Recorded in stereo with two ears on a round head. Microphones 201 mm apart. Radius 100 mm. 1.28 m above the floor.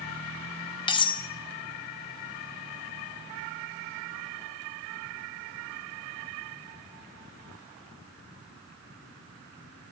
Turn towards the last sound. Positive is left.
turn(degrees=20)  # may be behind; listen again after turning